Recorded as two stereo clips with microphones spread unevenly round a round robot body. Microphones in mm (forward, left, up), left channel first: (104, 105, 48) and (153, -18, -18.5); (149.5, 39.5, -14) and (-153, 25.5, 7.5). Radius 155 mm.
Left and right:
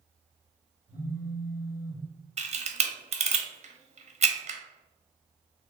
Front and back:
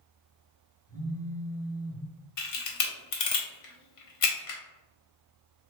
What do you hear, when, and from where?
0.9 s a phone buzzing: 60° right, 1.2 m
2.4 s a camera shutter: 30° right, 0.9 m